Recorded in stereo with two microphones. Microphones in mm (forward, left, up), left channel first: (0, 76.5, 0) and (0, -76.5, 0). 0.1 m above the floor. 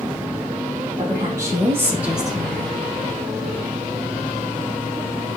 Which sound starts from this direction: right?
A woman speaking, at 1.0 s.